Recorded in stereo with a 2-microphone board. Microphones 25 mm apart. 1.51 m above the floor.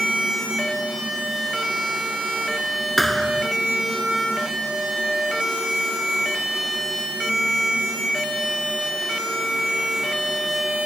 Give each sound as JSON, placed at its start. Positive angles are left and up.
{"t": 3.0, "sound": "a thud", "side_deg": 0}